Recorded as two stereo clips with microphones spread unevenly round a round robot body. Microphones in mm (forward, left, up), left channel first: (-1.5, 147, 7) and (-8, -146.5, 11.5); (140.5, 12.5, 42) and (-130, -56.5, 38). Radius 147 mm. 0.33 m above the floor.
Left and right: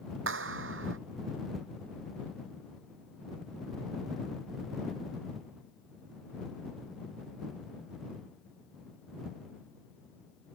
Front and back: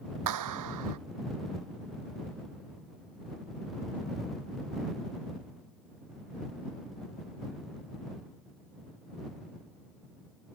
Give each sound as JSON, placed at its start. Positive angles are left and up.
{"t": 0.3, "sound": "a clap", "azimuth_deg": -145}